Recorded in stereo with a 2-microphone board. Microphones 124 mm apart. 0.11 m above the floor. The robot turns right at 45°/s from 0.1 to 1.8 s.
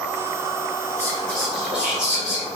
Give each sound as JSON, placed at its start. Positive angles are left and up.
{"t": 1.0, "sound": "whispering", "azimuth_deg": 150, "distance_m": 1.7}